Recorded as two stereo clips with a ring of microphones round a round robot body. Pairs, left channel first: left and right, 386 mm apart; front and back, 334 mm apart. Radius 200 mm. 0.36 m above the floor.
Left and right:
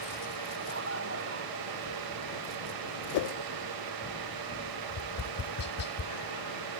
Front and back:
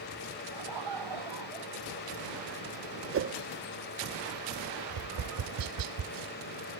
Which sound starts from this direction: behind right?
Laughter, at 0.5 s.